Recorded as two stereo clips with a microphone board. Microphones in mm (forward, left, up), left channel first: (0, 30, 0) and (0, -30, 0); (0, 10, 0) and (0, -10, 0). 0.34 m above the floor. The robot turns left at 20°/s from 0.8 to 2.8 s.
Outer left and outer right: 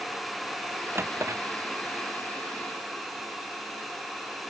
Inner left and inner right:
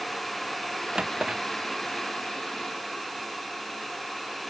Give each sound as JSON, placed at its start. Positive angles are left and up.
{"t": 0.9, "sound": "a drawer", "side_deg": -40}